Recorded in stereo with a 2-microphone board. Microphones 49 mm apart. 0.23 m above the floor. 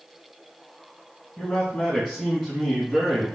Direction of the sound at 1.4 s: 5° right (ahead or behind).